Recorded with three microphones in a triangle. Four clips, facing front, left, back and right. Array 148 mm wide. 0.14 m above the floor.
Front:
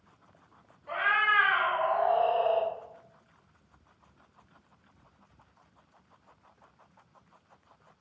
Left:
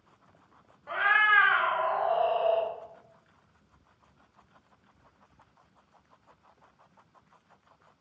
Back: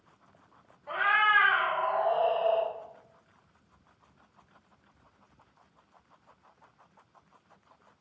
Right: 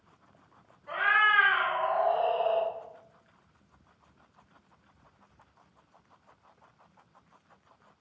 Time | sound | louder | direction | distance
0.9 | a cat meowing | left 1 dB, back 2 dB | 120° left | 1.0 m